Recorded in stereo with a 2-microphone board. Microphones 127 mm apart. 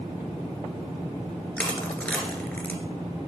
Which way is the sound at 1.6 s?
10° left (ahead or behind).